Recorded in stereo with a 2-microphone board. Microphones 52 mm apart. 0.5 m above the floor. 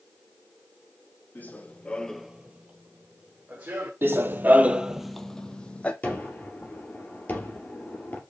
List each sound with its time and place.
1.4 s running footsteps: 30° left (ahead or behind), 1.1 m; by 3.9 s 30° right (ahead or behind), 2 m
4.0 s running footsteps: 40° right (ahead or behind), 0.7 m; by 5.9 s 20° left (ahead or behind), 0.9 m
6.0 s a gunshot: 30° left (ahead or behind), 2 m